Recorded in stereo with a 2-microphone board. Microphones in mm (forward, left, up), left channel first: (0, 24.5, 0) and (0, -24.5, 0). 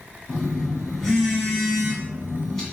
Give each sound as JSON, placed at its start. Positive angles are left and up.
{"t": 0.3, "sound": "a phone buzzing", "side_deg": 10, "distance_m": 1.8}